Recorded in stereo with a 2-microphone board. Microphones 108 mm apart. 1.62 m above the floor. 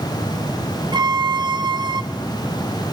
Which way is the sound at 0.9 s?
40° right (ahead or behind).